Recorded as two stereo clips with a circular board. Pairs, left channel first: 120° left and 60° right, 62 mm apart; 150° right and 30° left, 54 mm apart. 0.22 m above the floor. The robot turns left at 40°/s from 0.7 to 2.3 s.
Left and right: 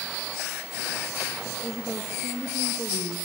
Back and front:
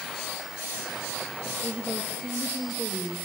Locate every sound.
1.6 s a woman speaking: 105° left, 5.5 m; by 3.2 s 75° left, 5.5 m